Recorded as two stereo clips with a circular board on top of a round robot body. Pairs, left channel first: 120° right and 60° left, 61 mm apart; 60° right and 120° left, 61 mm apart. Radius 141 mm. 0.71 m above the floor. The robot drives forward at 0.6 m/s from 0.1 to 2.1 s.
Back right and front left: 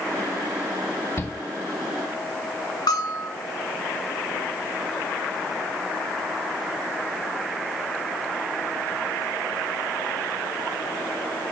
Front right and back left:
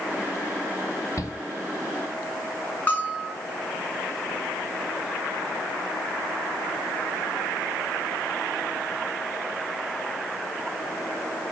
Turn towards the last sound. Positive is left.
turn(degrees=-125)